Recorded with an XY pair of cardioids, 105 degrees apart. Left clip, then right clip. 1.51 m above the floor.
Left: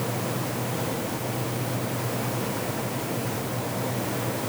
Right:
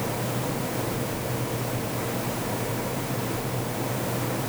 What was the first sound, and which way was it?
Only background noise.